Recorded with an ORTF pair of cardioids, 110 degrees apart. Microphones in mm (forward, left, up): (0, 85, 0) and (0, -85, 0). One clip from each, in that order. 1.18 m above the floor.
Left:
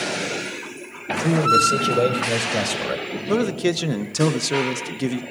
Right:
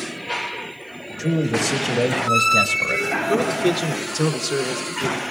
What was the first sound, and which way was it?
A man speaking, 15° left.